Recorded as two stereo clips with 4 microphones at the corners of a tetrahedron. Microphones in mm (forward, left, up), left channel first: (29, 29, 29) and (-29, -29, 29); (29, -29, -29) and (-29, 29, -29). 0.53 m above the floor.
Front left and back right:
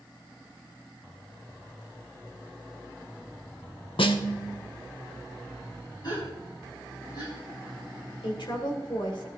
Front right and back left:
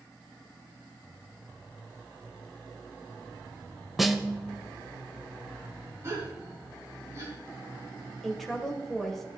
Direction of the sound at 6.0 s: 80° left.